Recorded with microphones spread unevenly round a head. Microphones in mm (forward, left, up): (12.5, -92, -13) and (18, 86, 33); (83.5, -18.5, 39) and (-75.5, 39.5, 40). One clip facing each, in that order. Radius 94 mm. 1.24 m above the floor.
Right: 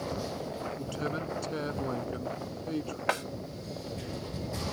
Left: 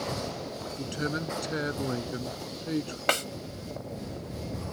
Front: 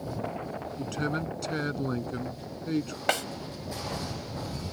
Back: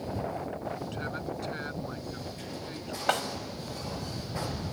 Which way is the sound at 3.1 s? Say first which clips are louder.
Left 3 dB, even; 50° left.